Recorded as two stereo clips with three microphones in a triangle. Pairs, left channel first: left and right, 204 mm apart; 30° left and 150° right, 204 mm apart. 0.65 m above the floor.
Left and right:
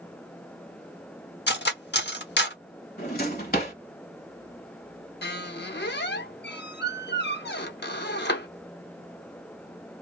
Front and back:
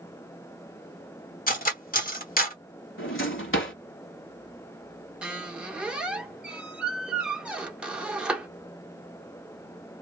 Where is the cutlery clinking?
70° left, 0.9 m.